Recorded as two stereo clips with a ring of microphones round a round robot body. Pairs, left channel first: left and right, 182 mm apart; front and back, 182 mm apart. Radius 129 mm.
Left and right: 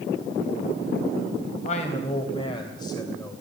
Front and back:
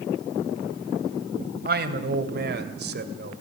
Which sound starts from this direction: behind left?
A man speaking, at 1.6 s.